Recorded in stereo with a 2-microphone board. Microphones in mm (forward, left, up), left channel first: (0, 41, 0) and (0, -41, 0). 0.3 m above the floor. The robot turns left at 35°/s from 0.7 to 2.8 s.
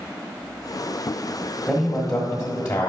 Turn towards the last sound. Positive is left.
turn(degrees=120)